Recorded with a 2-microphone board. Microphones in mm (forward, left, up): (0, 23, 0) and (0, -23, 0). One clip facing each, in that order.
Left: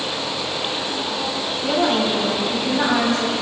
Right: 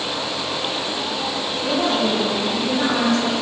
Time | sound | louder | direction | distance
1.6 | a woman speaking | left 1 dB | 25° left (ahead or behind) | 2 m